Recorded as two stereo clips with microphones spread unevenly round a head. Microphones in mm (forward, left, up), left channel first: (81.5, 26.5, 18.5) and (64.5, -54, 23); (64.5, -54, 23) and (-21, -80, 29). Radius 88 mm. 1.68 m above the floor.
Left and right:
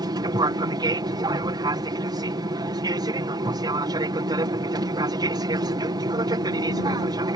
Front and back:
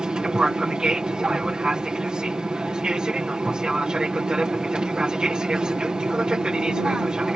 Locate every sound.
0.0 s an aircraft: 80° right